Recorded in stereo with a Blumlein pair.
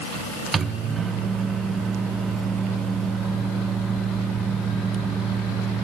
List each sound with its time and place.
0.5 s a microwave: 15° right, 0.8 m